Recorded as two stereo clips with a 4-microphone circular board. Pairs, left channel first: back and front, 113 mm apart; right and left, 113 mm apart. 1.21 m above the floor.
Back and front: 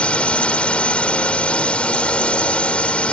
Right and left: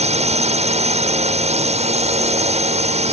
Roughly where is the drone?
Left.